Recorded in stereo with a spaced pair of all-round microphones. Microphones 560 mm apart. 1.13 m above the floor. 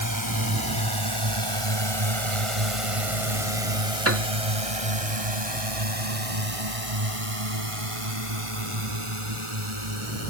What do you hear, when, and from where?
0.0 s a drone: 35° right (ahead or behind); by 10.3 s 55° right (ahead or behind)
4.0 s a piano: 25° right (ahead or behind)